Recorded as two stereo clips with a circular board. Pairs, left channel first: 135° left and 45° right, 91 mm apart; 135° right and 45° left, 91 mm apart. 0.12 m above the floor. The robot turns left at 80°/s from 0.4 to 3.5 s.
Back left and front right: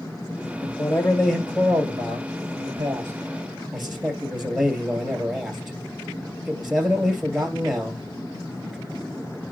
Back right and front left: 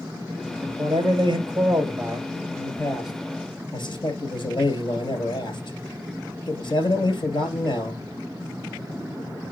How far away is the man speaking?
About 2.5 m.